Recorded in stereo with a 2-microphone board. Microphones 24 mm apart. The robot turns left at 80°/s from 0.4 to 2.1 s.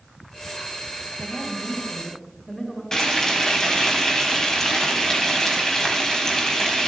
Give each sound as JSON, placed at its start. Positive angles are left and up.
{"t": 1.2, "sound": "a woman speaking", "azimuth_deg": 100, "distance_m": 7.0}
{"t": 2.9, "sound": "frying", "side_deg": 20, "distance_m": 3.5}